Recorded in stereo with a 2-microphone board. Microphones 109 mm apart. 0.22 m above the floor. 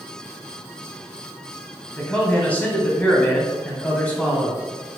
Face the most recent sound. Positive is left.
turn(degrees=15)  # may be behind; listen again after turning